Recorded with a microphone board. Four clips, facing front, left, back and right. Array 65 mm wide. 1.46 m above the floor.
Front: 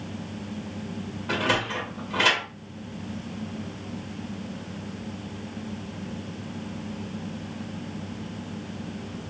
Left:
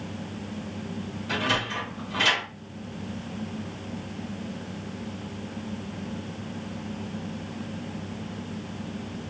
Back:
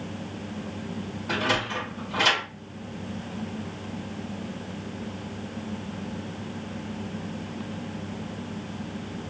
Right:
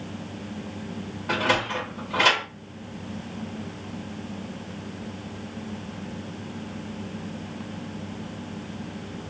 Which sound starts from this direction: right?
A sliding door, at 1.3 s.